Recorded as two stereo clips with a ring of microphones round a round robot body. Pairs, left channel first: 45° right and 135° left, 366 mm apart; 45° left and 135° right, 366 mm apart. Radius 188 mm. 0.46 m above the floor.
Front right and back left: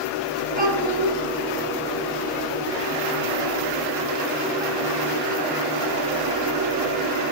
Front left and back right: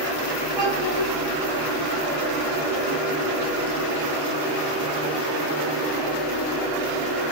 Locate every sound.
0.6 s a child speaking: 155° right, 4 m